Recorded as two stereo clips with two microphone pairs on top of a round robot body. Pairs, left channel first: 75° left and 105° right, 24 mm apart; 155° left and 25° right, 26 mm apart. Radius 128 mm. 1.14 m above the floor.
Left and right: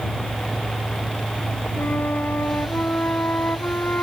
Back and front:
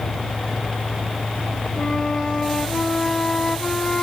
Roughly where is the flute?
Left.